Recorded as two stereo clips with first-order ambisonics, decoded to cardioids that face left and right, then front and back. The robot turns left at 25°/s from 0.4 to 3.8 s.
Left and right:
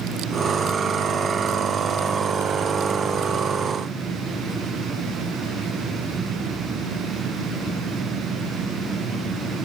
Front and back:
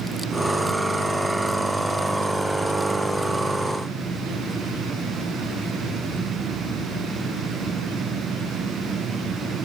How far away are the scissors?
No scissors in this recording.